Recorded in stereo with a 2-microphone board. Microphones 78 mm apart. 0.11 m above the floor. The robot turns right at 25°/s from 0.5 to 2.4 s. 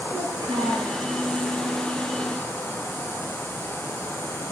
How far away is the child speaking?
About 6.5 m.